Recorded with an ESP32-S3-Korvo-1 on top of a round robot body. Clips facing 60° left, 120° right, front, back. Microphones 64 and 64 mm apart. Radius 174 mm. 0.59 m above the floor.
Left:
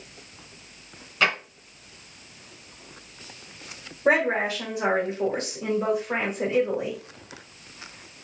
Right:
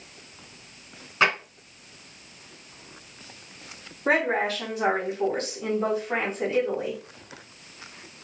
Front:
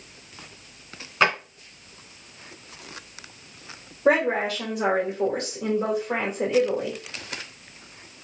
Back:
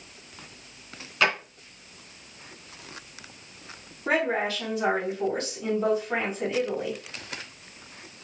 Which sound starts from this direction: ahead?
A woman speaking, at 4.0 s.